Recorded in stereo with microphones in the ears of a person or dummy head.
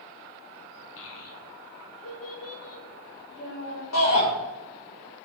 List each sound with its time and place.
1.0 s a child speaking: 75° left (ahead or behind), 1.3 m; by 3.8 s 70° left (ahead or behind), 4 m
3.9 s a shout: 85° left, 3.5 m